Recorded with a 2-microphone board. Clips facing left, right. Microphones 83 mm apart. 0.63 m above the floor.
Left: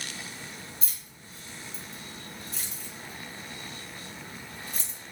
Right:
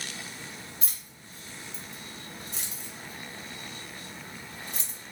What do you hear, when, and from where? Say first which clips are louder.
0.8 s keys jangling: even; 70° right (ahead or behind), 1.3 m